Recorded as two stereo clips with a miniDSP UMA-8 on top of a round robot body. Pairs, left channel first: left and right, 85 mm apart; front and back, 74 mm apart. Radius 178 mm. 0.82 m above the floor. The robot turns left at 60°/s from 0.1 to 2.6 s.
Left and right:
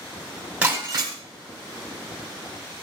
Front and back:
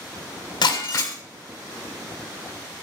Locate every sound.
0.6 s breaking glass: 15° right, 1.2 m; by 1.1 s 50° right, 1.2 m